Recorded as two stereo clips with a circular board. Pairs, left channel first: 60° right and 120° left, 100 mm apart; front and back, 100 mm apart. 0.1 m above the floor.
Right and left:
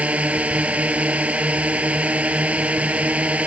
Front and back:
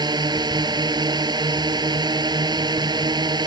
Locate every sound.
0.0 s a drone: 170° right